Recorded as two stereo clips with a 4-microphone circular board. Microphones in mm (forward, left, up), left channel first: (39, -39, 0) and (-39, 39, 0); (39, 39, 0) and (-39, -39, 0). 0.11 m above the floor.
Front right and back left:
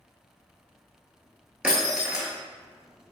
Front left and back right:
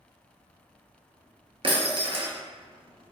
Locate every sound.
1.6 s breaking glass: 145° right, 0.7 m